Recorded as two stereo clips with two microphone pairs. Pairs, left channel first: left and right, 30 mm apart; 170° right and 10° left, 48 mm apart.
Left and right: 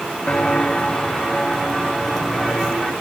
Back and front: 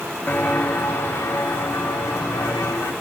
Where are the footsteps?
140° left, 1.0 m; by 2.9 s 170° left, 2.5 m.